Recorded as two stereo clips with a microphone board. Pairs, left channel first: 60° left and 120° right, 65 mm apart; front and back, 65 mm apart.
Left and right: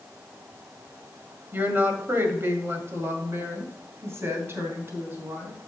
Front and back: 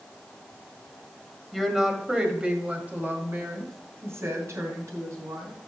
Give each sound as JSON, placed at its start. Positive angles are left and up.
{"t": 1.5, "sound": "a woman speaking", "azimuth_deg": -95, "distance_m": 1.8}